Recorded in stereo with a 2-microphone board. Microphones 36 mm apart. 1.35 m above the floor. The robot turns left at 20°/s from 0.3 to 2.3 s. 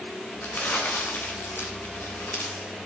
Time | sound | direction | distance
0.4 | crumpling | 55° left (ahead or behind) | 3 m